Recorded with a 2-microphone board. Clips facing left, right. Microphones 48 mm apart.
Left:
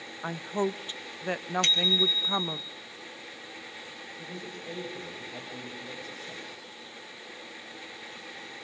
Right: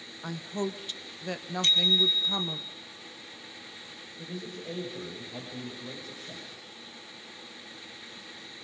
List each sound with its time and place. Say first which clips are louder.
0.2 s a woman speaking: left 3 dB; 30° left (ahead or behind), 0.8 m
1.6 s a bicycle bell: right 2 dB; 85° left, 3.5 m
4.2 s a man speaking: right 3 dB; centre (ahead or behind), 6 m